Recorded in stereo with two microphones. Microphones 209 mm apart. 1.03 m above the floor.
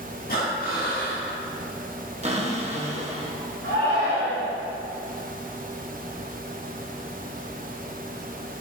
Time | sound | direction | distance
0.3 | breathing | 45° left (ahead or behind) | 1.6 m
2.2 | a cupboard door | 30° right (ahead or behind) | 0.9 m
3.6 | a shout | 80° right | 1.8 m